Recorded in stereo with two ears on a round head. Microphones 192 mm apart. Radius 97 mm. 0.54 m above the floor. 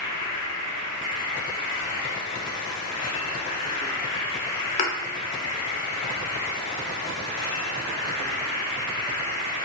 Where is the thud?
35° left (ahead or behind), 0.7 m.